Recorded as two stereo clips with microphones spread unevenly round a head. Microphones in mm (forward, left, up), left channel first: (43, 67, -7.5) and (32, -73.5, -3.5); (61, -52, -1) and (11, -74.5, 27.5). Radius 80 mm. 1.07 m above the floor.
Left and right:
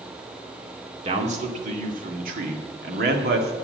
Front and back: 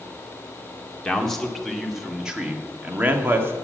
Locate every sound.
1.1 s a man speaking: 55° right, 2.5 m; by 3.5 s 110° right, 2.0 m